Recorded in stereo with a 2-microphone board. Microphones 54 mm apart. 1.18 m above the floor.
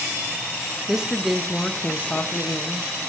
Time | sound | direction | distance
0.9 | a woman speaking | 15° right (ahead or behind) | 1.1 m